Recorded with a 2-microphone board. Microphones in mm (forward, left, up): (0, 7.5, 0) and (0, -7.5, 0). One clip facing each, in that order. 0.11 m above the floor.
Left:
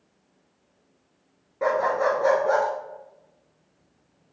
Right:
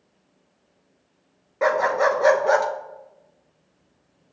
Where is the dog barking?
40° right (ahead or behind), 0.5 m.